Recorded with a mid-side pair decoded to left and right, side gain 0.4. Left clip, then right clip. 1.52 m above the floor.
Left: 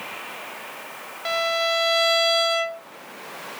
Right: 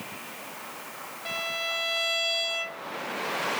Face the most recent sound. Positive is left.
turn(degrees=70)